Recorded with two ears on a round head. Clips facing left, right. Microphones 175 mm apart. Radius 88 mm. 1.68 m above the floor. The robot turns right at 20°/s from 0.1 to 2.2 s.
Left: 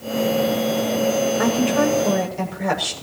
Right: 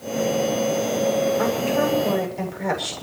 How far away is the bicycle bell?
I don't hear a bicycle bell.